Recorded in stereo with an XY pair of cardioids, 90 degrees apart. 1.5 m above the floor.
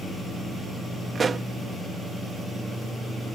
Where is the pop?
40° right.